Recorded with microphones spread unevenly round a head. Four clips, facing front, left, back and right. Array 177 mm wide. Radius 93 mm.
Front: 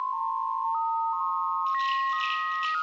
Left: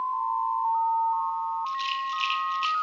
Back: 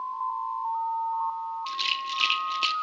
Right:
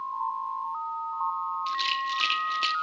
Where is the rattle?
160° right, 1.8 m.